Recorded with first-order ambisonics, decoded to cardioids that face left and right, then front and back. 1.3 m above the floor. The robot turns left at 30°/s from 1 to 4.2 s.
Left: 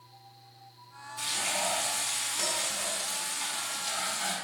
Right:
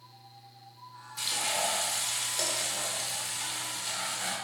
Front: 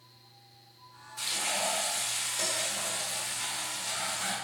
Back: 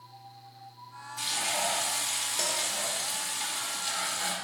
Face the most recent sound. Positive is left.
turn(degrees=-170)